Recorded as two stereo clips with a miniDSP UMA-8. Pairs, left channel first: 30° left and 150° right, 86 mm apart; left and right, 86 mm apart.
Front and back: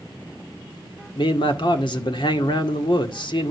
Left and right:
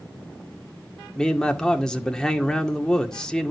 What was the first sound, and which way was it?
A man speaking, 5° left.